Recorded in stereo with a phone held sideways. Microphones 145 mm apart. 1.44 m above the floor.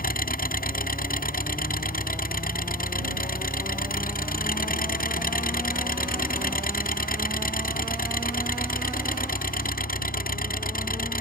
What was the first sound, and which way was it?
An engine running, 80° left.